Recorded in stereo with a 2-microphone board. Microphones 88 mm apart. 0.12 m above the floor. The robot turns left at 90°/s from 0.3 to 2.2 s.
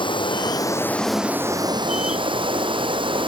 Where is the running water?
75° left, 2.0 m; by 3.3 s 95° right, 2.0 m.